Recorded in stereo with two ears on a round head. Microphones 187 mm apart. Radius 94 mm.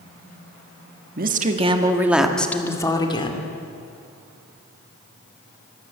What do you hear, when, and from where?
1.2 s a woman speaking: 45° right (ahead or behind), 1.6 m; by 3.5 s 30° left (ahead or behind), 3 m